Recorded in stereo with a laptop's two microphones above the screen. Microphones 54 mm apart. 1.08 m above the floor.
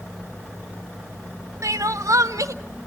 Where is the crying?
80° right, 0.7 m.